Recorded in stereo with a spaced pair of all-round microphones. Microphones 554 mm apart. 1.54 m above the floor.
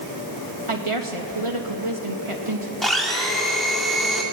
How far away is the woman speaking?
About 3 m.